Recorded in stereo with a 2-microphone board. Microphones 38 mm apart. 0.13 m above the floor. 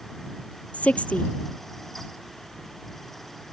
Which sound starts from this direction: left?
A woman speaking, at 0.7 s.